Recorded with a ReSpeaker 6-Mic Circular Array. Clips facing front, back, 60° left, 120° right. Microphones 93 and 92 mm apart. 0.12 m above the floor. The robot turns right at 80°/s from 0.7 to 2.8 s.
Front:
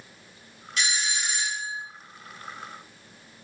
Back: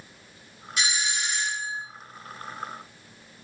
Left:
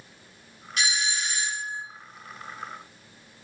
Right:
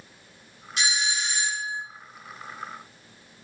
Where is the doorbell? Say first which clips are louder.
Even, right 1 dB; 130° right, 1.5 m; by 1.8 s 45° right, 1.5 m.